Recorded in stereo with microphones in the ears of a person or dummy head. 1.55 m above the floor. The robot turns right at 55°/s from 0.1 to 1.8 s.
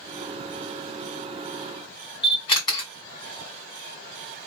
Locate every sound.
2.2 s a camera shutter: 30° left (ahead or behind), 1.6 m